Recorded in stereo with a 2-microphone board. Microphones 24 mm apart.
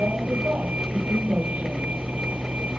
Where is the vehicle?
65° right (ahead or behind); by 2.8 s 70° right (ahead or behind).